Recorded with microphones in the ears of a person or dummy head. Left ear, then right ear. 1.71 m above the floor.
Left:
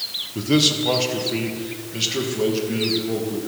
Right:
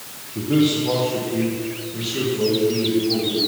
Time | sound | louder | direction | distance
0.3 | a man speaking | left 1 dB | 70° left (ahead or behind) | 1.6 m